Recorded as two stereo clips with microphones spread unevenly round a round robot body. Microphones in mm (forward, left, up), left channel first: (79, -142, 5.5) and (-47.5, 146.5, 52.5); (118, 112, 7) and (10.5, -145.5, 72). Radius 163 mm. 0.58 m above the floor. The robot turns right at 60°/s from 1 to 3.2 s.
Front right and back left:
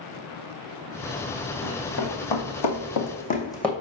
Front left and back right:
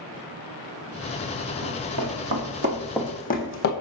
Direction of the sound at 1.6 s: 145° right.